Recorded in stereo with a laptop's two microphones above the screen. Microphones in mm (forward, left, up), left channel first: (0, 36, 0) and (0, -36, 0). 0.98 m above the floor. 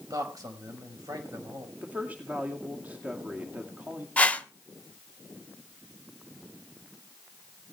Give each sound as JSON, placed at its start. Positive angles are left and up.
{"t": 0.1, "sound": "a man speaking", "side_deg": -55, "distance_m": 4.5}
{"t": 1.8, "sound": "a woman speaking", "side_deg": -20, "distance_m": 2.0}
{"t": 4.2, "sound": "a whoosh", "side_deg": 20, "distance_m": 1.0}